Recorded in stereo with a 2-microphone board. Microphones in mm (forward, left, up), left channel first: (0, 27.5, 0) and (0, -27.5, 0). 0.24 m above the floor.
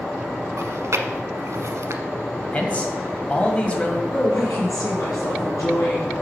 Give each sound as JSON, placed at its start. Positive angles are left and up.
{"t": 0.6, "sound": "chewing", "side_deg": -70, "distance_m": 0.8}
{"t": 2.5, "sound": "a man speaking", "side_deg": 25, "distance_m": 1.6}
{"t": 4.1, "sound": "a woman speaking", "side_deg": 75, "distance_m": 4.5}